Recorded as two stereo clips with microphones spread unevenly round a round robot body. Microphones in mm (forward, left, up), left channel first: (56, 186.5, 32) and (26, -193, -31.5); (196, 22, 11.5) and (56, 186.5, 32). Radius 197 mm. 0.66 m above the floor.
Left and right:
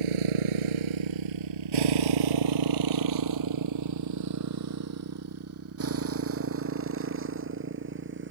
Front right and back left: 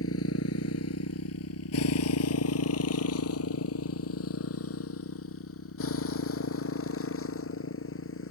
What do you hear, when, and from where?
0.0 s a motorcycle: 105° right; by 8.3 s 35° right